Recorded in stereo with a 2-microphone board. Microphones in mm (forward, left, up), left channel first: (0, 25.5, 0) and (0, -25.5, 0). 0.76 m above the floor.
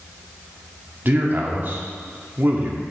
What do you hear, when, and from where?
1.1 s a man speaking: 40° right (ahead or behind), 1.2 m